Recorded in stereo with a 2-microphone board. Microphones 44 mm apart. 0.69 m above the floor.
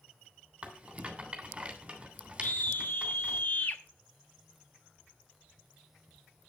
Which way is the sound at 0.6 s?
25° right (ahead or behind).